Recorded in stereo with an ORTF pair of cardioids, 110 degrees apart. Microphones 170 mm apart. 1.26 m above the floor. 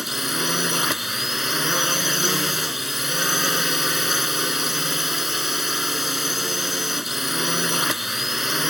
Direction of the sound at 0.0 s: Straight ahead.